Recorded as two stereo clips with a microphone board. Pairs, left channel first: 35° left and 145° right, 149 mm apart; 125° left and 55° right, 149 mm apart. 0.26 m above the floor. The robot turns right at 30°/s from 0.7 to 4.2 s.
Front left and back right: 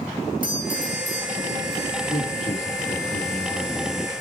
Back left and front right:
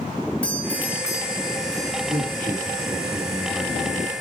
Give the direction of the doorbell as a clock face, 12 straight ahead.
11 o'clock.